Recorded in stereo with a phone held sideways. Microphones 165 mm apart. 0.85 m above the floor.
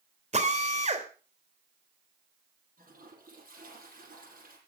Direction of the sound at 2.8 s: 60° right (ahead or behind).